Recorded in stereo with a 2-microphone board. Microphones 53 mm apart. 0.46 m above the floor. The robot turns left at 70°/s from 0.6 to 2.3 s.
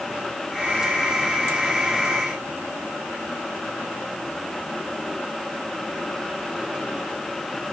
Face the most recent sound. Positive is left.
No sound to turn to.